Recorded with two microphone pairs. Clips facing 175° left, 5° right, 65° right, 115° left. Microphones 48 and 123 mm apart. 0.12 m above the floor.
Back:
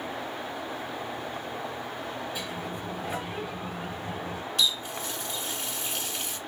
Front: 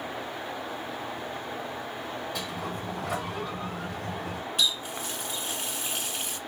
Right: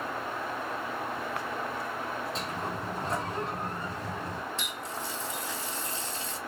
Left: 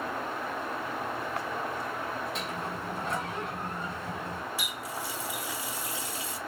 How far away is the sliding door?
About 1.3 m.